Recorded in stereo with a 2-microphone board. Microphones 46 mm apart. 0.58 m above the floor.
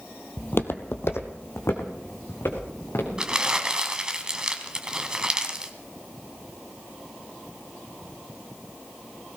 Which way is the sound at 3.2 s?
15° right (ahead or behind).